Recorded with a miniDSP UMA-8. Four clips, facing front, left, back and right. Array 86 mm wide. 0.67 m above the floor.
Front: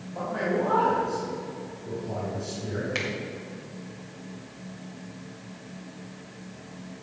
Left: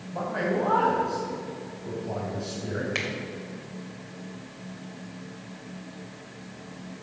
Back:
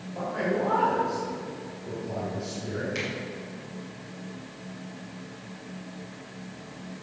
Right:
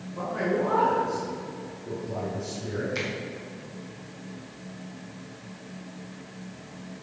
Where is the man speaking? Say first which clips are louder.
Even, front 1 dB; 80° left, 4 m.